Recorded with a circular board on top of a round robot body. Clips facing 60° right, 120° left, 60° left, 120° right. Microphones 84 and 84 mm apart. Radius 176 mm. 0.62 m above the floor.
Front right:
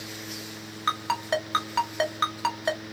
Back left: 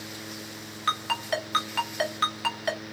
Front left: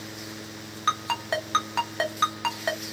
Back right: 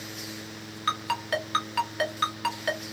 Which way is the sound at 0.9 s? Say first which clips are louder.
Front right 2 dB, front left 2 dB; straight ahead.